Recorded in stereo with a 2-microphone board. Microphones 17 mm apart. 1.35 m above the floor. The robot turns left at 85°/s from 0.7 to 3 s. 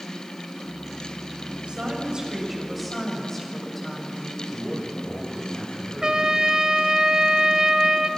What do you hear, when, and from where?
1.7 s a woman speaking: 80° right, 7.5 m; by 4.4 s 165° left, 7.5 m
4.5 s a man speaking: 50° right (ahead or behind), 8 m
6.0 s a trumpet: 40° right (ahead or behind), 1.5 m